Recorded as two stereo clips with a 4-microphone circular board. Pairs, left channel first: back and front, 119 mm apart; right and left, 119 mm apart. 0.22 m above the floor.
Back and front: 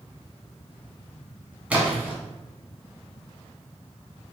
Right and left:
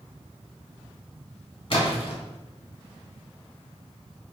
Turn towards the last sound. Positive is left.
turn(degrees=-75)